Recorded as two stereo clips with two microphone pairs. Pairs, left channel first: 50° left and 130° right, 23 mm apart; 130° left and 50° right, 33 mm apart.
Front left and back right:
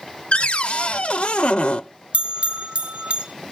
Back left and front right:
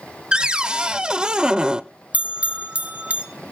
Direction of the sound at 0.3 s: 15° left.